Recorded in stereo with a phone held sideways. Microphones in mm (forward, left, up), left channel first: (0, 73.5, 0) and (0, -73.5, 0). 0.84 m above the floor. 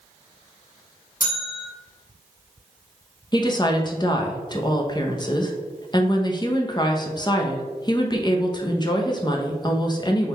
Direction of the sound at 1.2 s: 75° left (ahead or behind).